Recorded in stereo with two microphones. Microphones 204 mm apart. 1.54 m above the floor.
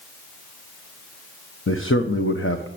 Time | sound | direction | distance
1.7 | a man speaking | 80° left | 1.2 m